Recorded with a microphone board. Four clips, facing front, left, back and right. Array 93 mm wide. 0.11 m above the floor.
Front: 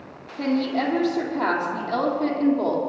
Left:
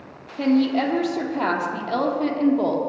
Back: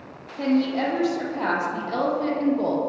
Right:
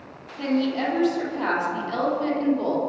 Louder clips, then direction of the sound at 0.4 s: Left 4 dB, back 1 dB; 95° left.